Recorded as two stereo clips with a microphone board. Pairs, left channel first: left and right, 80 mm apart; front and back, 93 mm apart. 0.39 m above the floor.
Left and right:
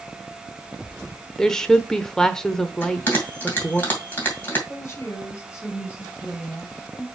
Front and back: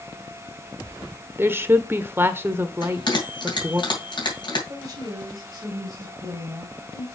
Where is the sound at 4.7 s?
150° left, 1.9 m.